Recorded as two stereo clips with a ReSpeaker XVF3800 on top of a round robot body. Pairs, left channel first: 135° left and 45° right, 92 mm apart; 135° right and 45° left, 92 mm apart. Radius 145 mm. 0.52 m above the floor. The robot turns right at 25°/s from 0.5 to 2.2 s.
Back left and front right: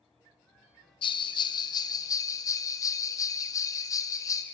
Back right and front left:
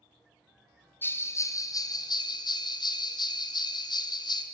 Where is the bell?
155° left, 0.5 m; by 4.4 s 175° right, 0.5 m.